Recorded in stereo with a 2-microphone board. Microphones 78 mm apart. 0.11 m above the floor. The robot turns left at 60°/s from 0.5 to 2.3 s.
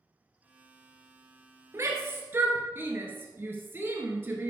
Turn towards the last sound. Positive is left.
turn(degrees=-30)  # may be behind; listen again after turning